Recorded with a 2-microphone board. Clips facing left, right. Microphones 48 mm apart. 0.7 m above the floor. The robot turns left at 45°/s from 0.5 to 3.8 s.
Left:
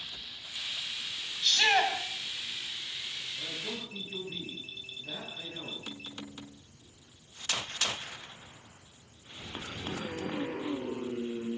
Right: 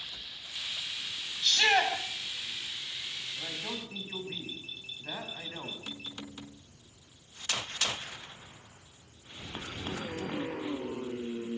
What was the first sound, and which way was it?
A shout, 15° left (ahead or behind).